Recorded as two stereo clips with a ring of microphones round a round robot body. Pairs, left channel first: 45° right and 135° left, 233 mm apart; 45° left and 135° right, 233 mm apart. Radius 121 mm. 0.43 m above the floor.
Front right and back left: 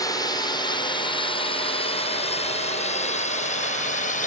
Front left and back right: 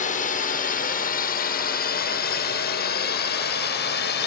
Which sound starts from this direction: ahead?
A drone, at 0.0 s.